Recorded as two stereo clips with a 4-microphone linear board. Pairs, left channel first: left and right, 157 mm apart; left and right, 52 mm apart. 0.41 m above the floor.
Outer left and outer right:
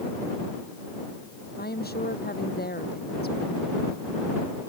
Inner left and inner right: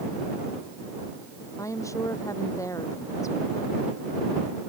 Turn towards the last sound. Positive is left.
turn(degrees=85)